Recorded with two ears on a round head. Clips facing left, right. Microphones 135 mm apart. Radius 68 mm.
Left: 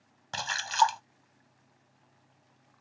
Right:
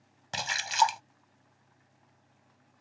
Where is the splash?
15° right (ahead or behind).